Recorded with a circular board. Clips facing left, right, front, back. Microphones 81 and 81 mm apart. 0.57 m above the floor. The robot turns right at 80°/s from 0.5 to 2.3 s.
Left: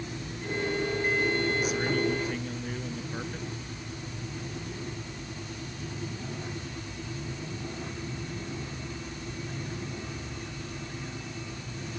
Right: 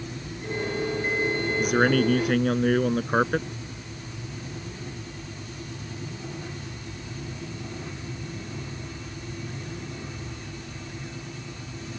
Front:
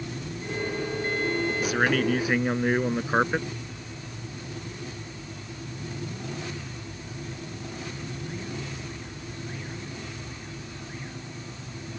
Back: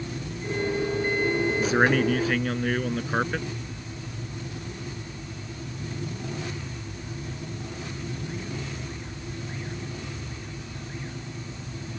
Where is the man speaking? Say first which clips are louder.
Right 7 dB, back 3 dB; 130° right; by 3.5 s 70° right.